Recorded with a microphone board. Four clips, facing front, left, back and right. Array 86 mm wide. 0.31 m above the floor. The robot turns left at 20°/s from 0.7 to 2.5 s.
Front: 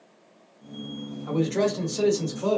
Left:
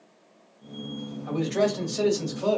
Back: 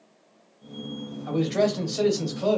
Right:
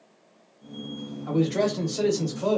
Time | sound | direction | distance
1.3 | a man speaking | 160° right | 1.6 m